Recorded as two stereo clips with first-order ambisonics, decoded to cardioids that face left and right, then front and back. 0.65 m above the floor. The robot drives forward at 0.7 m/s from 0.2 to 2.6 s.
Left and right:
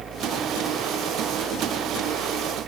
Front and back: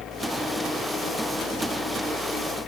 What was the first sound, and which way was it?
Only background noise.